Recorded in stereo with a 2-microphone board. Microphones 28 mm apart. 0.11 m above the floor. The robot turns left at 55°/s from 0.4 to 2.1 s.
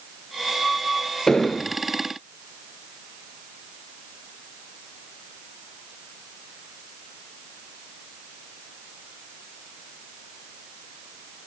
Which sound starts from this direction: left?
An explosion, at 1.3 s.